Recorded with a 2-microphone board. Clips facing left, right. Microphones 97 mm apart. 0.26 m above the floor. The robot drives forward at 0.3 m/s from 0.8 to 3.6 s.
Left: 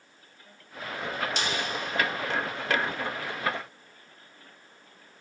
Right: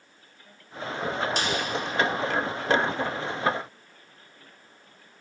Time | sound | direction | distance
1.4 | a snare drum | 45° right (ahead or behind) | 0.5 m